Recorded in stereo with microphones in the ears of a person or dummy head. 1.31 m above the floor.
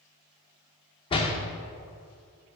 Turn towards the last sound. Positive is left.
turn(degrees=25)  # may be behind; listen again after turning